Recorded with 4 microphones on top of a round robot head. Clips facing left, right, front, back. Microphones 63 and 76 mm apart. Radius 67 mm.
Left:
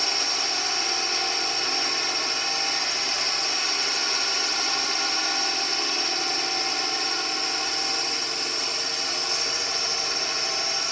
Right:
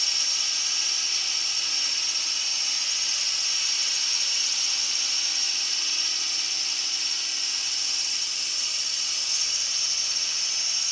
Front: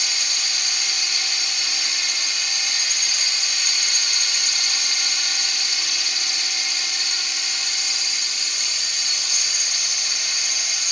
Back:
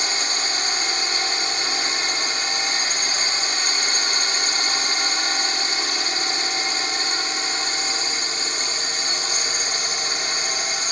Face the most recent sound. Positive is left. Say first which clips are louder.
# left 8 dB, back 5 dB
turn(degrees=135)